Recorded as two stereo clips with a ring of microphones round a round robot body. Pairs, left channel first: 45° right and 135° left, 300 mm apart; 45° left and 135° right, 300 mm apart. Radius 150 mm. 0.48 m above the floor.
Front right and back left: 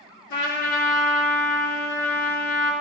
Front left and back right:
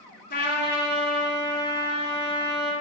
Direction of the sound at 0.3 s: 15° right.